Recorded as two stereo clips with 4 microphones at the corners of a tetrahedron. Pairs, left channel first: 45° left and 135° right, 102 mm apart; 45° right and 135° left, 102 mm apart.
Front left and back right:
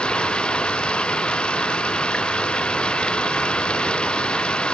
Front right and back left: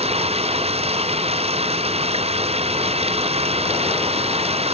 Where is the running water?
125° left.